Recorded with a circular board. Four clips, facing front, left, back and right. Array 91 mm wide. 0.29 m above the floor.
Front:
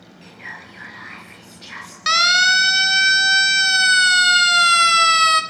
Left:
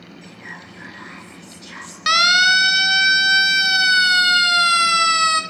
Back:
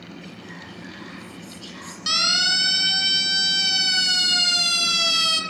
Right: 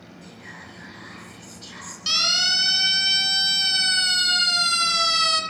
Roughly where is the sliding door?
No sliding door in this recording.